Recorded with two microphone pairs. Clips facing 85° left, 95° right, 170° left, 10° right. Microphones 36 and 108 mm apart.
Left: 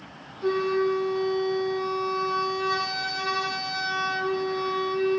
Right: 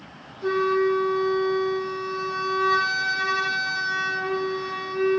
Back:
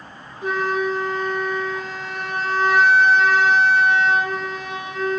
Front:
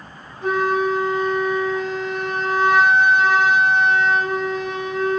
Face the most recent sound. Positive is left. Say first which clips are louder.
# right 2 dB, front 3 dB
turn(degrees=10)